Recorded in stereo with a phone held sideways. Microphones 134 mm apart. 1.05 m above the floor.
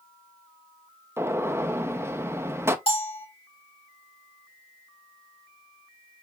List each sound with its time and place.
1.2 s a gunshot: 20° right (ahead or behind), 0.6 m
2.9 s a bell: 45° left (ahead or behind), 2.5 m